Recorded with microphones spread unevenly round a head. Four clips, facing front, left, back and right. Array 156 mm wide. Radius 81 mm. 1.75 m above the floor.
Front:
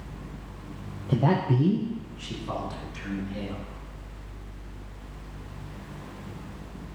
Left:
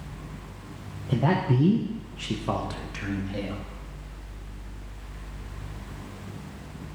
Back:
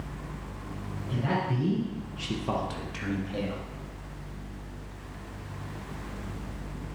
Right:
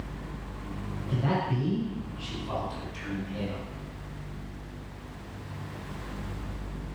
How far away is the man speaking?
About 1.4 m.